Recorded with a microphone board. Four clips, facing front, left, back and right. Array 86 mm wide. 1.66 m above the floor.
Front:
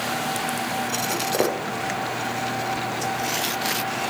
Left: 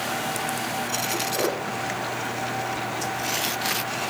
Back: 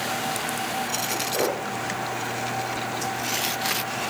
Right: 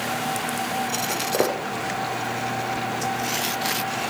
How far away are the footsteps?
About 5 m.